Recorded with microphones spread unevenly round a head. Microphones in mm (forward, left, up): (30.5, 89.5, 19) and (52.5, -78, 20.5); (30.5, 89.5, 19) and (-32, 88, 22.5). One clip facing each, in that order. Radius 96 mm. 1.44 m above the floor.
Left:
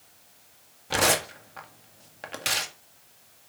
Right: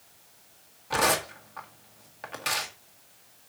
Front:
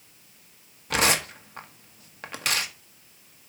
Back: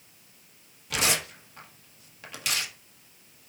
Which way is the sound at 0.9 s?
40° left.